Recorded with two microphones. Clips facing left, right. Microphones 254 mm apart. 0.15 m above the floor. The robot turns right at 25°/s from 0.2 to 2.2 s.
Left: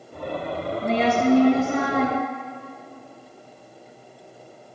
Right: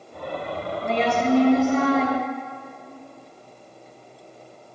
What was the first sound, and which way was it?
A woman speaking, 25° left.